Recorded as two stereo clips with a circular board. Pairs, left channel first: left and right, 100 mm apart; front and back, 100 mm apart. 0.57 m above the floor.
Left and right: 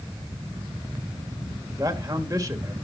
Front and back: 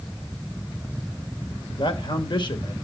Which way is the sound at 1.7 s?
40° right.